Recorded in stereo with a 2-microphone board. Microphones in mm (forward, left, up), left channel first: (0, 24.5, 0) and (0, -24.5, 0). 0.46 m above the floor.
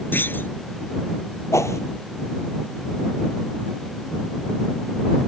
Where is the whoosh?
80° left.